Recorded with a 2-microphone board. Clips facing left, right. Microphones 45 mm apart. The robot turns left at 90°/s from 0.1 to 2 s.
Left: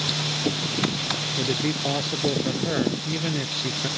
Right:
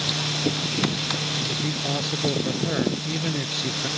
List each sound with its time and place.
1.4 s a man speaking: 65° left; by 3.9 s 5° left